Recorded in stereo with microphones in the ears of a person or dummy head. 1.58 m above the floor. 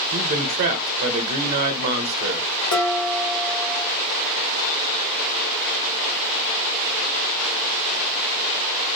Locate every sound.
0.1 s a man speaking: 45° right (ahead or behind), 0.5 m
2.7 s dishes clattering: 65° left (ahead or behind), 1.3 m